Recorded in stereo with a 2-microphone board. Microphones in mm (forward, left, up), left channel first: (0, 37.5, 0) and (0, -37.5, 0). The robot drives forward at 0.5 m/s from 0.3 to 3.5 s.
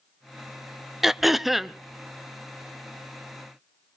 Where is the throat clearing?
5° right (ahead or behind), 0.5 m; by 1.8 s centre (ahead or behind), 0.9 m.